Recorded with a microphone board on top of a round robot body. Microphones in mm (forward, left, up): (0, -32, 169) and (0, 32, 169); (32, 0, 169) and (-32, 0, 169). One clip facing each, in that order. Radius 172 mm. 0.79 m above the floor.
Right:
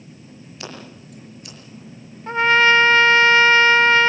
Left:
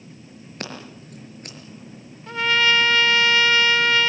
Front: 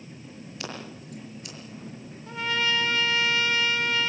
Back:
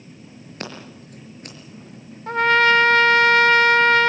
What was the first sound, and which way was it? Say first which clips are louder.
Scissors: left 2 dB, back 3 dB; 135° left.